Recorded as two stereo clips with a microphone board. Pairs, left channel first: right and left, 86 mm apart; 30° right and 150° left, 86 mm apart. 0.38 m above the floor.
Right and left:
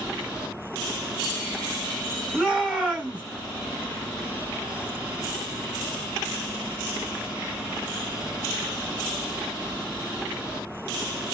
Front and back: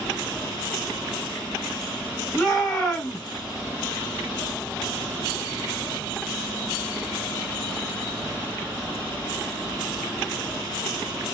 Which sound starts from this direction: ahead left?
A shout, at 2.3 s.